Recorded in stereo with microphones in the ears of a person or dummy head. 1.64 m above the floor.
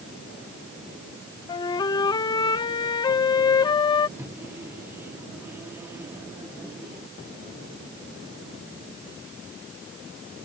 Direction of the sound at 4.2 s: 15° right (ahead or behind).